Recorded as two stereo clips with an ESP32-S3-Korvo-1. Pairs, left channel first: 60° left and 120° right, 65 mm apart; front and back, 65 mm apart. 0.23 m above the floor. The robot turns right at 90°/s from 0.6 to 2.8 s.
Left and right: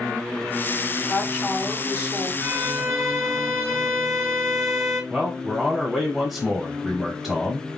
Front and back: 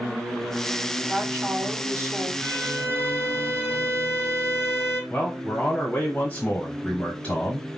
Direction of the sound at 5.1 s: 45° right.